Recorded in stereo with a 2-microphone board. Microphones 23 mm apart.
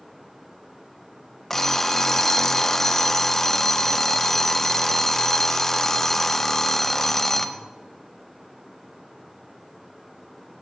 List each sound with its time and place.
1.5 s an alarm clock: 15° left (ahead or behind), 0.7 m